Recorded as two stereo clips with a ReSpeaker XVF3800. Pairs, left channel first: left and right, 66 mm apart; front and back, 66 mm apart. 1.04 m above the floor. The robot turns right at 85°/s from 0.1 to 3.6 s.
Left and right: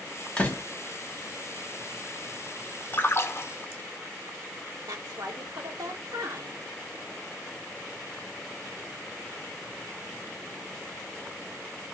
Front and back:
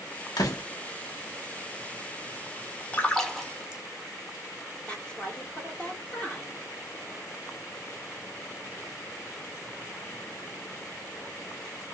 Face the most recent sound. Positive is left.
turn(degrees=-75)